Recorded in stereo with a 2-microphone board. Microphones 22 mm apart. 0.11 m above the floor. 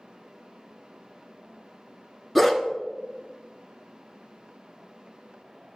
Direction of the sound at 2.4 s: 15° left (ahead or behind).